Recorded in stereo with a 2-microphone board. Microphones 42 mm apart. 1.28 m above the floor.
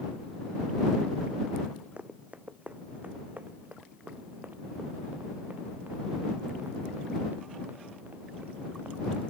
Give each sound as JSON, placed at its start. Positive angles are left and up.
{"t": 2.0, "sound": "running footsteps", "side_deg": -35}